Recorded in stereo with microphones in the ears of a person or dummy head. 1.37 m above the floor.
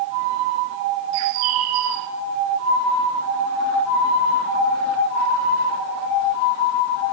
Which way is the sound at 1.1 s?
70° right (ahead or behind).